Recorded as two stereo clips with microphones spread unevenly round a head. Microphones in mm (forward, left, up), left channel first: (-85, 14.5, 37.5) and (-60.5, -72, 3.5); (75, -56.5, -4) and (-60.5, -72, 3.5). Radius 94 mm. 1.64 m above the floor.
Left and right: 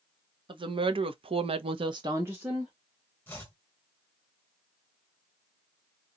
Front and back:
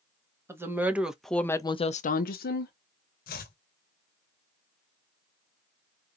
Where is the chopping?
35° left, 0.6 m.